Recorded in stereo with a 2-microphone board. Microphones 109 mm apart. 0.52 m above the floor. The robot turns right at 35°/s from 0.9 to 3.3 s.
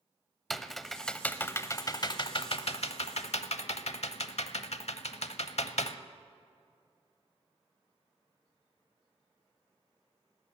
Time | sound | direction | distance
0.5 | typing on a keyboard | 5° left (ahead or behind) | 0.7 m